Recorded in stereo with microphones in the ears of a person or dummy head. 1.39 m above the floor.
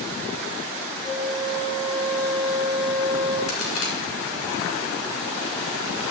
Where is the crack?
85° left, 3 m.